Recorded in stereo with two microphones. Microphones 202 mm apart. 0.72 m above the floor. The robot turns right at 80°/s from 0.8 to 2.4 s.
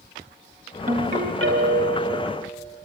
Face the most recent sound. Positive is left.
turn(degrees=-20)